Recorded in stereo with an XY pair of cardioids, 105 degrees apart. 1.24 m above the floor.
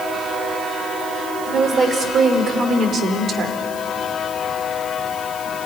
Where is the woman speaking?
45° right, 3.5 m; by 3.6 s 60° right, 3 m.